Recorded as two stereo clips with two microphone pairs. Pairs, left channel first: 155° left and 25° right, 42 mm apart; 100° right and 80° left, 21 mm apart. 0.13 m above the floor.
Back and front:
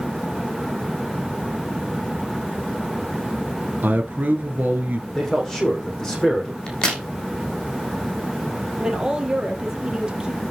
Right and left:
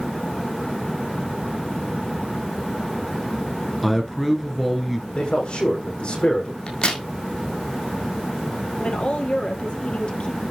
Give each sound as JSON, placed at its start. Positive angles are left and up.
{"t": 3.8, "sound": "a man speaking", "azimuth_deg": -20, "distance_m": 2.0}
{"t": 5.2, "sound": "a man speaking", "azimuth_deg": -125, "distance_m": 6.0}
{"t": 6.7, "sound": "a crack", "azimuth_deg": -130, "distance_m": 3.0}
{"t": 8.8, "sound": "a woman speaking", "azimuth_deg": -95, "distance_m": 3.0}